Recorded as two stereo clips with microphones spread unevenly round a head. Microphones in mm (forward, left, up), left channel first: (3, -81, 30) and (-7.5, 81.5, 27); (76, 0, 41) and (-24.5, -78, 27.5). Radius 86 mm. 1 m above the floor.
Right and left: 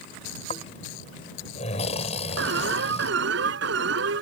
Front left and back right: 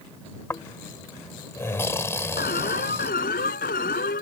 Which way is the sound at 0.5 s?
30° right.